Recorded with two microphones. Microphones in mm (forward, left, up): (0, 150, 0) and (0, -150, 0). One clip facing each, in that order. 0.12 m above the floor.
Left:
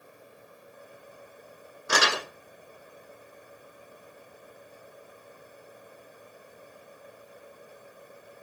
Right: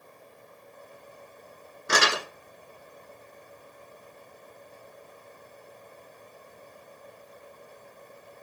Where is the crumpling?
25° right (ahead or behind), 1.7 m.